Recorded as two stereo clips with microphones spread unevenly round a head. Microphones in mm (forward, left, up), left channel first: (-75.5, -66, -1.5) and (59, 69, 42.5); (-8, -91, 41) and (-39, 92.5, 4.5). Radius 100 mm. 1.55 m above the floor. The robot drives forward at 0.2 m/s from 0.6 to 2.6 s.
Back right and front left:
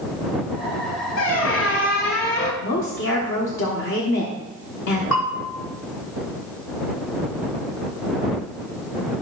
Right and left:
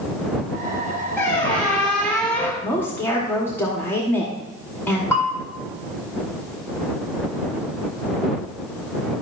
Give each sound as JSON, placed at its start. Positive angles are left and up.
{"t": 1.2, "sound": "a squeak", "azimuth_deg": -150, "distance_m": 1.5}
{"t": 2.6, "sound": "a woman speaking", "azimuth_deg": -160, "distance_m": 1.2}
{"t": 5.1, "sound": "a bell", "azimuth_deg": -160, "distance_m": 1.9}